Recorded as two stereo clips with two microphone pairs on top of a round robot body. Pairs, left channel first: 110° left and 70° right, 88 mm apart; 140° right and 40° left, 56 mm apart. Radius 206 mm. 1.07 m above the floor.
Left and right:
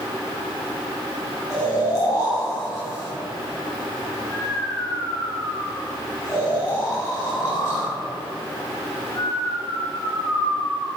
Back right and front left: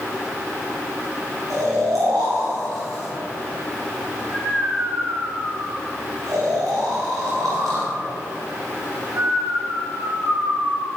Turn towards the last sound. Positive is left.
turn(degrees=50)